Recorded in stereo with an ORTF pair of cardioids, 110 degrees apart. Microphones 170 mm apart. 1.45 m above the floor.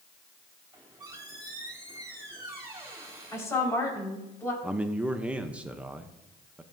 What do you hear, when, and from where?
0.7 s a squeak: 20° right, 3.5 m
3.3 s a woman speaking: 15° left, 4.5 m
4.6 s a man speaking: 5° right, 0.6 m